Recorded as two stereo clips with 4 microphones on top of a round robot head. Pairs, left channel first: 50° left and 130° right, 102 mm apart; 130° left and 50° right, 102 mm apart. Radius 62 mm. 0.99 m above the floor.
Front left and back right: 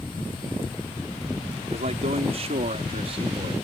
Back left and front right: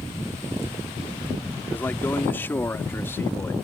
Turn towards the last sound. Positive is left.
turn(degrees=-160)